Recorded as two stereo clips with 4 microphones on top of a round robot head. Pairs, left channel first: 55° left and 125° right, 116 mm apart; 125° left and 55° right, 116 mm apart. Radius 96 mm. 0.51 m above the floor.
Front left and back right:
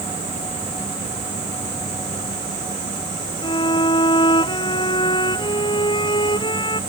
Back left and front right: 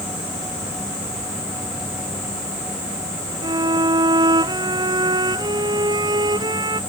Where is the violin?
Straight ahead.